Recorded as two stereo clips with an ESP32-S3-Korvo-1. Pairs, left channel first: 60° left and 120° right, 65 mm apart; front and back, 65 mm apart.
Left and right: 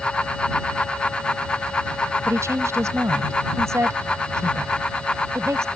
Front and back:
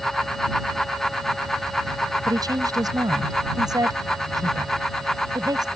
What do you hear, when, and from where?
2.2 s a woman speaking: 165° right